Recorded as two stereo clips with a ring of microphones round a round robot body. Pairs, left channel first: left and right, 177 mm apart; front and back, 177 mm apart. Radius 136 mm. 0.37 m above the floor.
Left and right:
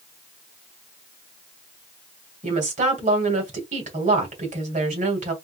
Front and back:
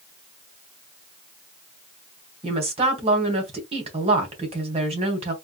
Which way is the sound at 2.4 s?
130° right.